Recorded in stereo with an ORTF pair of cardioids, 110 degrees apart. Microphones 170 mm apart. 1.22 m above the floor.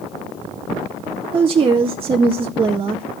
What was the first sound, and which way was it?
A woman speaking, 30° right.